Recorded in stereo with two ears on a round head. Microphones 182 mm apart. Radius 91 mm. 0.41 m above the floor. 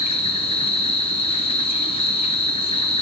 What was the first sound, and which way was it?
An insect, 30° left (ahead or behind).